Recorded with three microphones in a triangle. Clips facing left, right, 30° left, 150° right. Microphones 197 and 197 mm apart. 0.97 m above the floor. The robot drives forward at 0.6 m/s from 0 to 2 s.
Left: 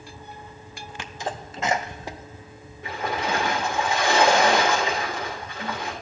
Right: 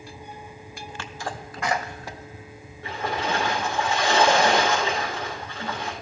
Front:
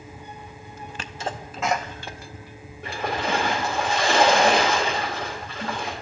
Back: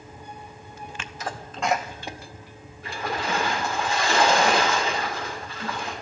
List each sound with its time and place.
1.0 s a sneeze: 30° left, 0.6 m; by 3.4 s 150° left, 0.5 m
2.8 s a splash: 20° left, 4 m